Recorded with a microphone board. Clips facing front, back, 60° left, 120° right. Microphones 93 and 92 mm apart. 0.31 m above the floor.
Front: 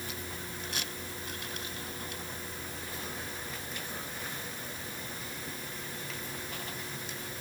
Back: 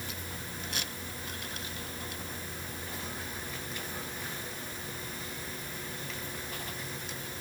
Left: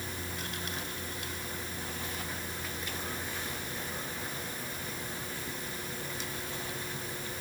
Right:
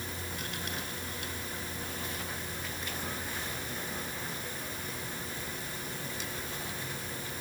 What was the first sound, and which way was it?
Only background noise.